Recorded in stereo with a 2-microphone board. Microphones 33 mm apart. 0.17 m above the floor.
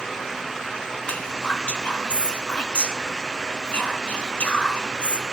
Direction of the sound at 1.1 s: 40° left (ahead or behind).